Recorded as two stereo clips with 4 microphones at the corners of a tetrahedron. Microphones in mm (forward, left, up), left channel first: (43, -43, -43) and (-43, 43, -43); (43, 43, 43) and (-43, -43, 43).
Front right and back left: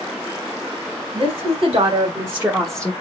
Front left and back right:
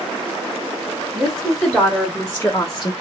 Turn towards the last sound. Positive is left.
turn(degrees=25)